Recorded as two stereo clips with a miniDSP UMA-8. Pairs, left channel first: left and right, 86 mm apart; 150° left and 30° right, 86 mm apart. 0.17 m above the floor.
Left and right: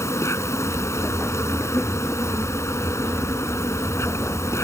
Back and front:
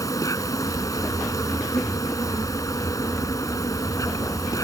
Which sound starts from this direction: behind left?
An insect, at 0.0 s.